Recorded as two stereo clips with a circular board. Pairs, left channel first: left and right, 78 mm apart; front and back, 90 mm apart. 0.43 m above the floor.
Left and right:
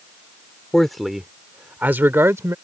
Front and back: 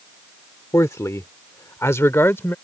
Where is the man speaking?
10° left; by 2.5 s 55° right.